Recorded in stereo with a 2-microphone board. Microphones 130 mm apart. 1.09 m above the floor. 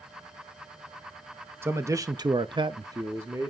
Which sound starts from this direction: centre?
A man speaking, at 1.6 s.